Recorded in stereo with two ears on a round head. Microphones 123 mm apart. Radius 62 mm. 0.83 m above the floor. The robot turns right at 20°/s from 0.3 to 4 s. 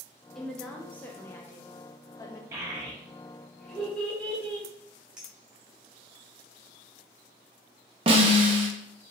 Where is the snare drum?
40° right (ahead or behind), 0.8 m.